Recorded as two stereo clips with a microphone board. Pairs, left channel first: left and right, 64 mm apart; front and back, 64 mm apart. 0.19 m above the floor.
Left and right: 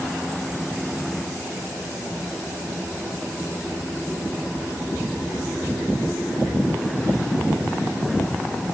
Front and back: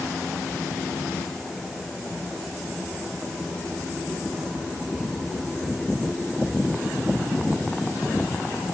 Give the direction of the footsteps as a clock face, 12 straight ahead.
I don't hear footsteps.